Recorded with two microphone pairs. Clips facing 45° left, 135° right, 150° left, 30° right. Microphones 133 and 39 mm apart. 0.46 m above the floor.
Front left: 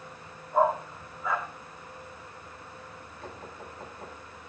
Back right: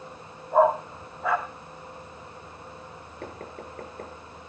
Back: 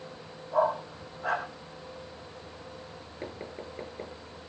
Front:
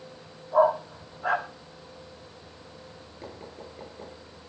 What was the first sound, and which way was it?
A dog barking, 115° right.